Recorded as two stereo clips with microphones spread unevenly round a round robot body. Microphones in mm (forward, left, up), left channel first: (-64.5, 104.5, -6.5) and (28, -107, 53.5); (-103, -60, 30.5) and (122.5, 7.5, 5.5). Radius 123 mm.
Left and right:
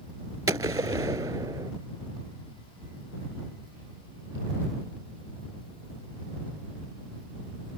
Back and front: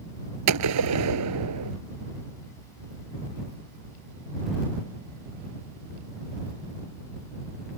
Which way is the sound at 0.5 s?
10° left.